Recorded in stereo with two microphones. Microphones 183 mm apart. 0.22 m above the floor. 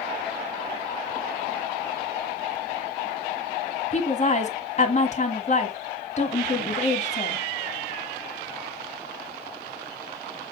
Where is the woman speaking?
40° left (ahead or behind), 1.6 m.